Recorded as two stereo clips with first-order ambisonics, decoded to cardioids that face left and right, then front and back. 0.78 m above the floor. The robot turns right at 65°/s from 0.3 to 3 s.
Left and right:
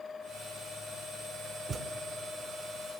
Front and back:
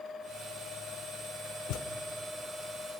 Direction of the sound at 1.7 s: 25° right.